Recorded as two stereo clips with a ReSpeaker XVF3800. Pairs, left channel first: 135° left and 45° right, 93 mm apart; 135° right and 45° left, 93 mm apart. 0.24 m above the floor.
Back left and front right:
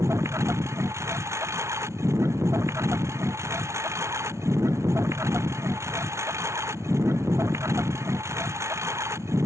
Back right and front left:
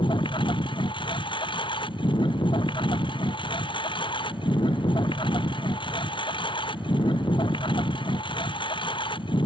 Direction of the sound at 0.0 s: 105° right.